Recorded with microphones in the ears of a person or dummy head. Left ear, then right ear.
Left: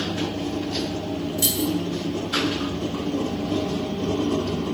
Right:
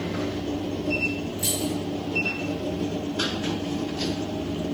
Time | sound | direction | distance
1.4 | keys jangling | 85° left | 1.5 m